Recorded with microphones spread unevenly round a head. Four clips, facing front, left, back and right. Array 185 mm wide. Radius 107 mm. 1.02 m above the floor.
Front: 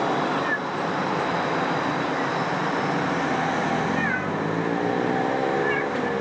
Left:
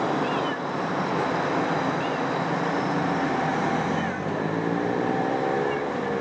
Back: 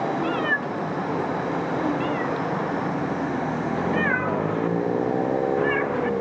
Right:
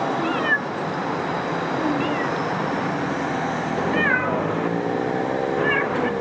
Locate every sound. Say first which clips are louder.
0.2 s a cat meowing: right 3 dB, even; 115° right; by 6.1 s 85° right